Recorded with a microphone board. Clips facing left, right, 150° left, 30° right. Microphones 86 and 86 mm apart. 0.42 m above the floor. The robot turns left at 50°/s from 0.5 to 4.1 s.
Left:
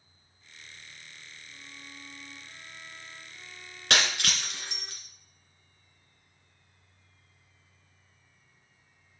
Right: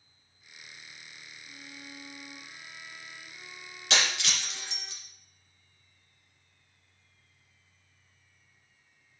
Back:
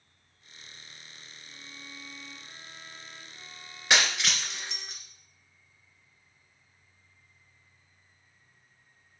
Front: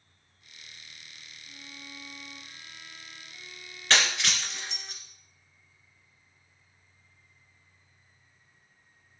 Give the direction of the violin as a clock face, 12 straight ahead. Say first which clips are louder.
Right 4 dB, front 1 dB; 4 o'clock.